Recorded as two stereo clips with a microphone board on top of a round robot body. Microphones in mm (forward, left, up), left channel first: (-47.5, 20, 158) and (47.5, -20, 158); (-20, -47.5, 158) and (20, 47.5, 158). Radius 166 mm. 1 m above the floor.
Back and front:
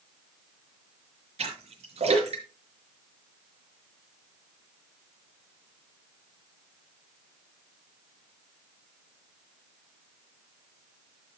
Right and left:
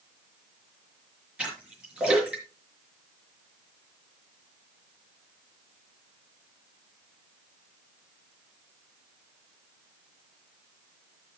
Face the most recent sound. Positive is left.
turn(degrees=-15)